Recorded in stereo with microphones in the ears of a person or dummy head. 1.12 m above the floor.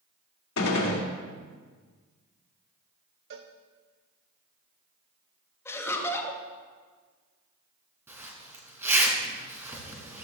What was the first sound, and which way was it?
A gunshot, 85° left.